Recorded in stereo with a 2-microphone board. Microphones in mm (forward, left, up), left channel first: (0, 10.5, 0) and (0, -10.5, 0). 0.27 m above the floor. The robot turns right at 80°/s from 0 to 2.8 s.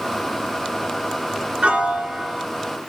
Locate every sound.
1.6 s a piano: 80° right, 1.0 m; by 2.4 s 15° right, 1.0 m